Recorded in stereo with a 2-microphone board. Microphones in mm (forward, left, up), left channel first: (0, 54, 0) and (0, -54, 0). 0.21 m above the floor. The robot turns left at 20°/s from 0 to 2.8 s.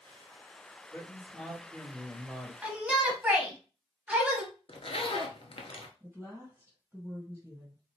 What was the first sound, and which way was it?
A man speaking, 20° left.